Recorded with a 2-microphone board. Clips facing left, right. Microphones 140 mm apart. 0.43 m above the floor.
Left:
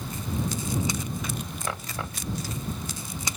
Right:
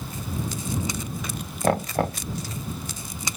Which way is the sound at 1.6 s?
65° right (ahead or behind).